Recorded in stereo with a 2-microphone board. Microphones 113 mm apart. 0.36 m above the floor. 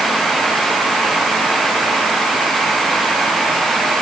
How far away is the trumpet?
No trumpet in this recording.